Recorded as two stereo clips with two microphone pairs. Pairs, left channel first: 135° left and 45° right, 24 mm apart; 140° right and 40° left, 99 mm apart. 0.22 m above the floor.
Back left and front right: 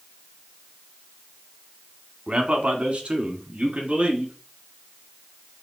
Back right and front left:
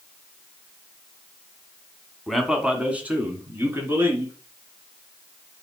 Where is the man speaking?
50° right, 1.4 m; by 4.3 s 25° right, 3 m.